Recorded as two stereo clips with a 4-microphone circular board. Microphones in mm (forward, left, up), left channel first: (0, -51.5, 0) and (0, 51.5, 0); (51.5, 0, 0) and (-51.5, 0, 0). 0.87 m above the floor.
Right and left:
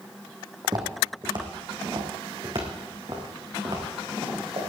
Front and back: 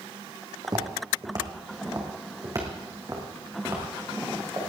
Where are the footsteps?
135° left, 2.5 m; by 4.7 s 120° left, 5.5 m.